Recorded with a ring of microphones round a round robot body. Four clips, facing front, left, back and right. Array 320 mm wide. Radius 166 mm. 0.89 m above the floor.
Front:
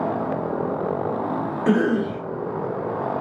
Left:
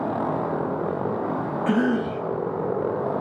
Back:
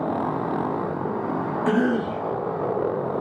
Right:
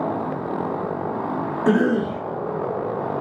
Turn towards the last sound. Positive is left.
turn(degrees=-85)